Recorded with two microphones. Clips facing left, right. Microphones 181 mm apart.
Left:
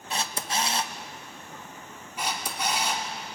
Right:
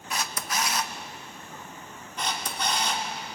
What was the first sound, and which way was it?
A camera shutter, 30° left (ahead or behind).